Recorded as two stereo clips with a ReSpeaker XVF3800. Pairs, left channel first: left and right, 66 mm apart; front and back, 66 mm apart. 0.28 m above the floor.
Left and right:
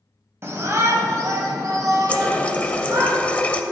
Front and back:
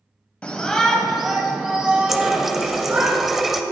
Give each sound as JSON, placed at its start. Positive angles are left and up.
{"t": 0.4, "sound": "a shout", "azimuth_deg": -65, "distance_m": 1.1}
{"t": 2.1, "sound": "a running tap", "azimuth_deg": 100, "distance_m": 0.6}